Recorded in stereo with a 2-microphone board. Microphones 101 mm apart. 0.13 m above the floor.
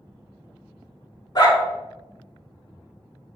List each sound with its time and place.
1.4 s a dog barking: 40° left (ahead or behind), 0.7 m